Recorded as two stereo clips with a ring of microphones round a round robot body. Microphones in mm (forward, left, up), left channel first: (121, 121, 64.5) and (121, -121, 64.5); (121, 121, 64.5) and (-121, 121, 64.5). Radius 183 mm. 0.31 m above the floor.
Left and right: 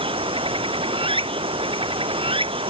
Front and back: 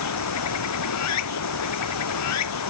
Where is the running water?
20° right.